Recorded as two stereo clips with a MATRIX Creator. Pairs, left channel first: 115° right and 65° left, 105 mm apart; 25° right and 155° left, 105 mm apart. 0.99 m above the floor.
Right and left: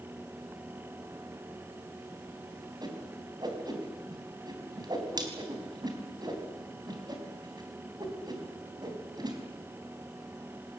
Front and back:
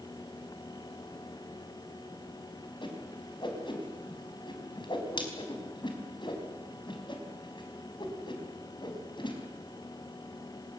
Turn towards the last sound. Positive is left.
turn(degrees=20)